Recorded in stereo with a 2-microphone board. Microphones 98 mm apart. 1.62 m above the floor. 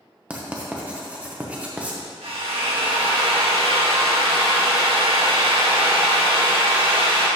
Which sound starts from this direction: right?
A drill, at 2.2 s.